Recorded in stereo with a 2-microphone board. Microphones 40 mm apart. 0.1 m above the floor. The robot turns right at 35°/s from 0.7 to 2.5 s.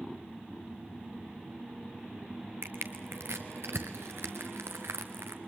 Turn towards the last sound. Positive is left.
turn(degrees=-85)